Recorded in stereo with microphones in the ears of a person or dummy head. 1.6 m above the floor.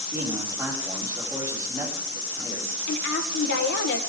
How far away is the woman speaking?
About 1.5 m.